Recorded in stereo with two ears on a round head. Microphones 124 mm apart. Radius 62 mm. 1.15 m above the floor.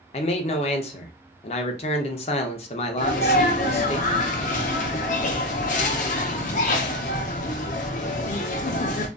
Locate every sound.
0.1 s a man speaking: 45° left (ahead or behind), 0.6 m
3.0 s a sneeze: 60° left (ahead or behind), 0.6 m